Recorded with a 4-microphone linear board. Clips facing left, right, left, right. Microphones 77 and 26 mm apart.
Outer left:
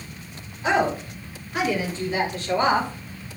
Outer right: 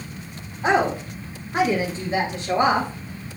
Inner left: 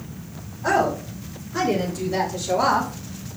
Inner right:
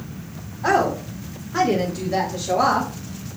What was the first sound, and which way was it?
A woman speaking, 50° right (ahead or behind).